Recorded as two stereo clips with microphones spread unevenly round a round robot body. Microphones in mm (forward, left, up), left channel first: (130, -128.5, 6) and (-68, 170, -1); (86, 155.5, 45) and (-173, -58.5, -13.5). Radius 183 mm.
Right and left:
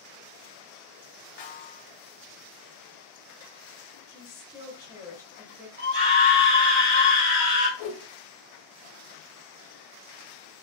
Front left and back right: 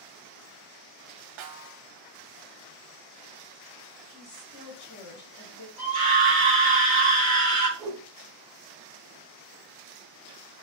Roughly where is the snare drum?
Behind right.